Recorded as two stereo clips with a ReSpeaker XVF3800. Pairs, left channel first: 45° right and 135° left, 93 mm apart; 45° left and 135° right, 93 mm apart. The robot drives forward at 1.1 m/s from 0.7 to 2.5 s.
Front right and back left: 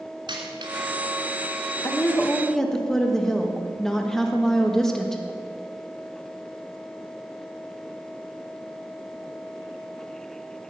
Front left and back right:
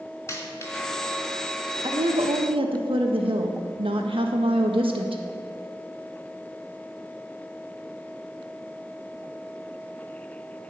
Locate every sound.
0.3 s a dropped coin: 100° left, 3 m; by 0.9 s 105° left, 3 m
1.8 s a woman speaking: 100° right, 1.3 m; by 5.2 s 130° right, 1.5 m